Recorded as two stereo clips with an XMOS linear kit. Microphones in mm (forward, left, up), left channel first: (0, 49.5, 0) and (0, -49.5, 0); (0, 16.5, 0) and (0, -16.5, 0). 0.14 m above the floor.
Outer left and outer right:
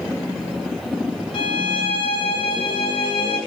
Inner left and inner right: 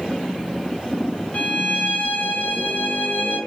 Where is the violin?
60° left (ahead or behind), 6 m.